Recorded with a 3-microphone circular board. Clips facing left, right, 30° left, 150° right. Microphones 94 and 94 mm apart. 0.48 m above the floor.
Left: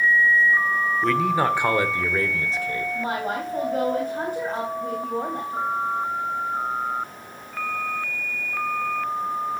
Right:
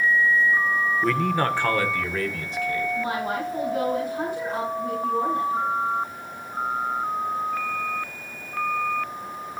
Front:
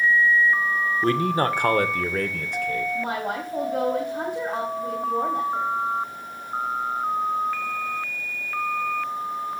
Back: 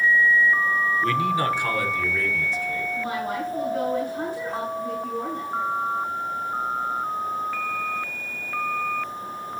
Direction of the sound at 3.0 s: 45° left.